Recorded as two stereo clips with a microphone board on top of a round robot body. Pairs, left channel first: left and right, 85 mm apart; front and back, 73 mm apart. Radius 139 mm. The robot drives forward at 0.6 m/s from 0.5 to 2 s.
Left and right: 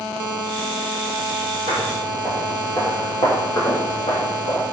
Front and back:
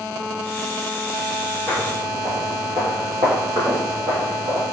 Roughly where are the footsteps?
Ahead right.